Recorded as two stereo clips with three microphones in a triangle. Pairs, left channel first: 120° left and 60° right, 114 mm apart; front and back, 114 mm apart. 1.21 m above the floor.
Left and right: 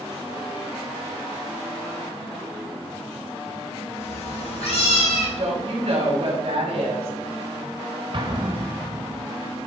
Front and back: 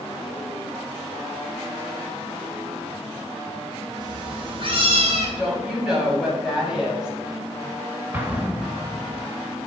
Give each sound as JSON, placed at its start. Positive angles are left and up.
{"t": 4.0, "sound": "a cat meowing", "azimuth_deg": 130, "distance_m": 4.5}
{"t": 5.4, "sound": "a woman speaking", "azimuth_deg": -95, "distance_m": 7.0}
{"t": 8.1, "sound": "an explosion", "azimuth_deg": -105, "distance_m": 2.0}